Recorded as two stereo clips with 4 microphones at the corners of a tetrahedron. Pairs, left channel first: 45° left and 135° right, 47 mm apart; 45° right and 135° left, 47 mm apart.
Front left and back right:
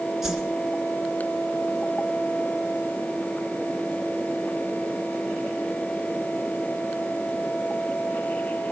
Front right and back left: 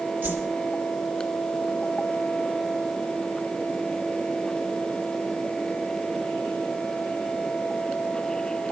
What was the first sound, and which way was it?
A whoosh, 145° left.